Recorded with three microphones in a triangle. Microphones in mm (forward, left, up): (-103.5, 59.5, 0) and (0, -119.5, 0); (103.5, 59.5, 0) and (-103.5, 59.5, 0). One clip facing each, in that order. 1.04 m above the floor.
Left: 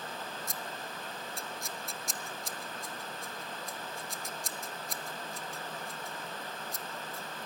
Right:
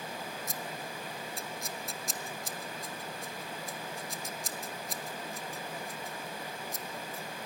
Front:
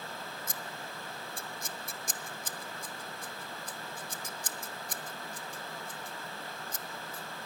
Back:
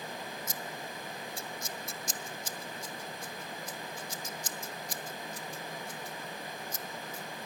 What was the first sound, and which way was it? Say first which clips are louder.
Scissors: right 2 dB, back 2 dB; 30° left.